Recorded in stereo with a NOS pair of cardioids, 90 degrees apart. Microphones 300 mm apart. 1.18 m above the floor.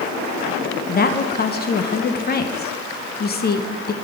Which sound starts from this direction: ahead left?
A woman speaking, at 0.9 s.